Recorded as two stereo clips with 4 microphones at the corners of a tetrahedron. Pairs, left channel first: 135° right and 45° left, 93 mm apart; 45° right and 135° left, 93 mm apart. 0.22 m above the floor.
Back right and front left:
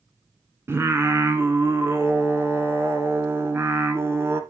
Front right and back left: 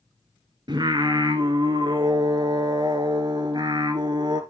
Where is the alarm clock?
I don't hear an alarm clock.